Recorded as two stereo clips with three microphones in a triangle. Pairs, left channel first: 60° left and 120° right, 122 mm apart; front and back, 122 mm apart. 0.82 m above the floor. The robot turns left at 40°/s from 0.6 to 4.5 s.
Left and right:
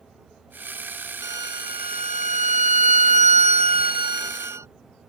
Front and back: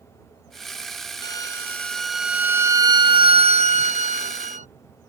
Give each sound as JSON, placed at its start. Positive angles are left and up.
{"t": 1.2, "sound": "a violin", "azimuth_deg": -55}